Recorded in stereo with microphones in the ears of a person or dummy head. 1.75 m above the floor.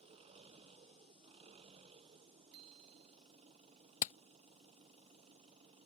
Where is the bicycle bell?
55° right (ahead or behind).